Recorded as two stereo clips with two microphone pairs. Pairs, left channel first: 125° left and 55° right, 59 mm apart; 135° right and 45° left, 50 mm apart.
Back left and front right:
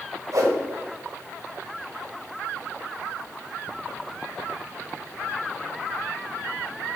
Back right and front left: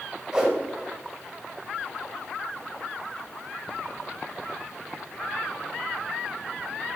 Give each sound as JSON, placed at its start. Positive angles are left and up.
{"t": 0.3, "sound": "a whoosh", "azimuth_deg": -30, "distance_m": 1.5}